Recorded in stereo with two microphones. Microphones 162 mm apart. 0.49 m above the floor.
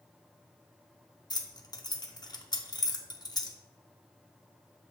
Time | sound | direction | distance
1.3 | keys jangling | 25° left (ahead or behind) | 0.6 m